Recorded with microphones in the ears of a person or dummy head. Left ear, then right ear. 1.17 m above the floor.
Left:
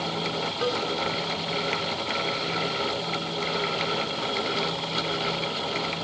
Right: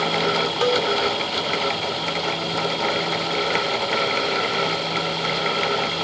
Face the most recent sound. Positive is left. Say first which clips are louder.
# right 7 dB
turn(degrees=-25)  # may be behind; listen again after turning